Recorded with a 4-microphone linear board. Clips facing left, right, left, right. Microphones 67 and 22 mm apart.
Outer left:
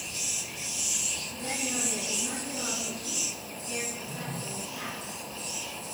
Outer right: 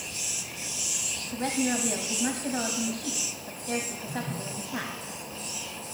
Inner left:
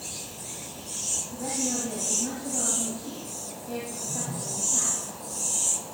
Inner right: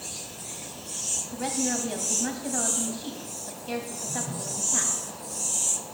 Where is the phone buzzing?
25° right (ahead or behind), 6.5 m.